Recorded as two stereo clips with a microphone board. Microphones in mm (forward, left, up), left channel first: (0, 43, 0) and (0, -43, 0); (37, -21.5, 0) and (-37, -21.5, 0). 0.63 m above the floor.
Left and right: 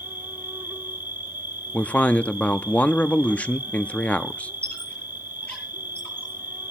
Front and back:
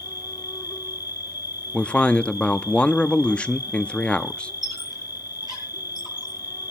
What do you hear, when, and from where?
0.0 s an insect: 20° right, 1.6 m
1.7 s a man speaking: 45° left, 0.5 m
4.6 s a squeak: 165° left, 9.5 m